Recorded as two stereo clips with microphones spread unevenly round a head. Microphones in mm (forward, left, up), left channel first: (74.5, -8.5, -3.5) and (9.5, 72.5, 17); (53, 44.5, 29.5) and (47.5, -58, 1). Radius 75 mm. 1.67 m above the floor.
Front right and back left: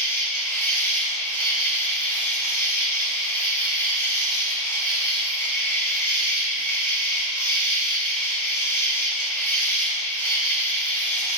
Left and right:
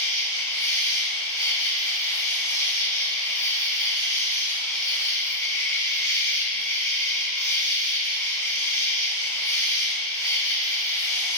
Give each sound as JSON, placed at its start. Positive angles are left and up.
{"t": 0.0, "sound": "an insect", "azimuth_deg": 20, "distance_m": 3.0}